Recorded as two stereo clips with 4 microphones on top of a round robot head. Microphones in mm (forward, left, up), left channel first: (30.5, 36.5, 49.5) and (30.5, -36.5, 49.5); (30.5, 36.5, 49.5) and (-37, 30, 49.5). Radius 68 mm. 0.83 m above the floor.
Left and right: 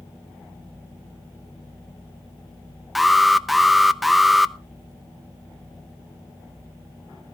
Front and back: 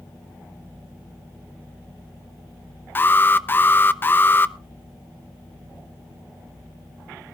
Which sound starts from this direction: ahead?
An alarm, at 3.0 s.